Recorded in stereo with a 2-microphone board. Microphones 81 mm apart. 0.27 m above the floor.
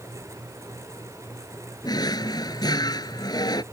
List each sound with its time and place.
1.8 s a drawer: 60° left (ahead or behind)